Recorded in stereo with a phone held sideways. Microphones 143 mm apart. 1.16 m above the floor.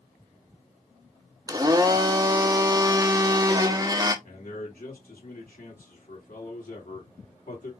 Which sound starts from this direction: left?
A man speaking, at 4.2 s.